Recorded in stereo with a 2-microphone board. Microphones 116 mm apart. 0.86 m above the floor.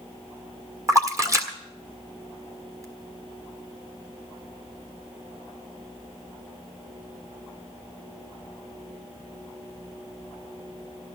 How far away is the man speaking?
No man speaking in this recording.